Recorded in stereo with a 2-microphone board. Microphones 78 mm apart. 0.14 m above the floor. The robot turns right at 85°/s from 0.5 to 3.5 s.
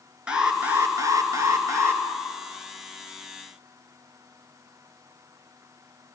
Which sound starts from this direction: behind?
An alarm, at 0.3 s.